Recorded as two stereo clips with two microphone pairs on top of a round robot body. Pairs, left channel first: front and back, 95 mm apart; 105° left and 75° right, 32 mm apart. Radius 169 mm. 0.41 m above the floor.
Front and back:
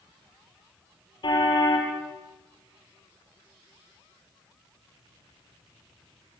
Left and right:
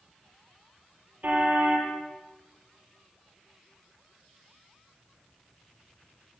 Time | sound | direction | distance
1.2 | a car horn | 40° right | 7.5 m